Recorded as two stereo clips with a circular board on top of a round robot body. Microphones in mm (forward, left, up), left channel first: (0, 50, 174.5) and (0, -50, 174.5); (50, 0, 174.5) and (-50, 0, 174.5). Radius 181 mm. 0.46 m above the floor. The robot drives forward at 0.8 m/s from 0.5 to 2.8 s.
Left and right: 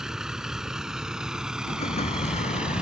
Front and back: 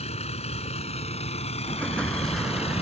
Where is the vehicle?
5° right; by 2.8 s 10° right.